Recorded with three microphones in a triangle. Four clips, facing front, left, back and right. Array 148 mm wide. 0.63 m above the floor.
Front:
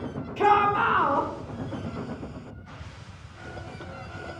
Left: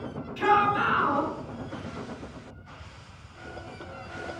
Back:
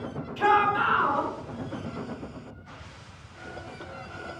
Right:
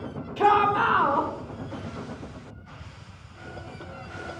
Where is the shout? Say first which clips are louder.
Right 3 dB, front 2 dB; 50° right, 1.7 m.